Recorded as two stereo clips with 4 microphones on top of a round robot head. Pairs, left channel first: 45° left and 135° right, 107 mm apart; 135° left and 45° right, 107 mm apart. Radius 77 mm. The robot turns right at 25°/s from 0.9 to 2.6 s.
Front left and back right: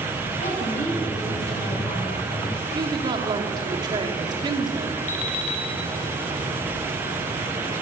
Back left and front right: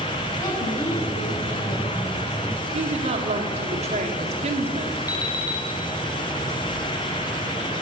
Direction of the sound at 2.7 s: 80° right.